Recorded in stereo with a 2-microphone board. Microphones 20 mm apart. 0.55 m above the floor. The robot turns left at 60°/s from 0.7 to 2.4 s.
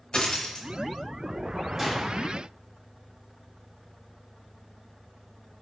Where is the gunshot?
5° right (ahead or behind), 1.1 m; by 2.2 s 25° right (ahead or behind), 1.1 m.